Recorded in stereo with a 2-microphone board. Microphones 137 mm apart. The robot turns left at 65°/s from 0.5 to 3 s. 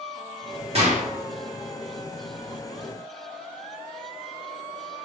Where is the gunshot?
50° right (ahead or behind), 1.0 m; by 1.1 s 65° right (ahead or behind), 1.0 m.